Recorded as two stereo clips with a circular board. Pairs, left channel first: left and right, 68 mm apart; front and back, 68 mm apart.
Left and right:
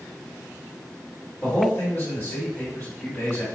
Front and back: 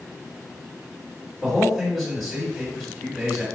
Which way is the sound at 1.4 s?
95° left.